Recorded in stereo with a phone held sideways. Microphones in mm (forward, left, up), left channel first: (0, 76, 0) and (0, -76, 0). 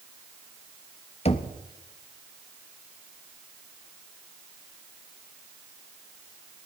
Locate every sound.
1.2 s knocking: 45° left (ahead or behind), 1.0 m